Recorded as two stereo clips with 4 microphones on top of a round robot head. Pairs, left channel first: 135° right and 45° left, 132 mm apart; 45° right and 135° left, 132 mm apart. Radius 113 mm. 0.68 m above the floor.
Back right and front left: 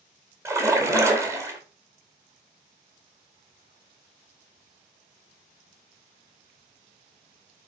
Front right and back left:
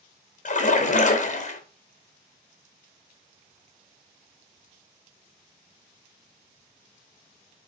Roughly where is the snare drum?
I don't hear a snare drum.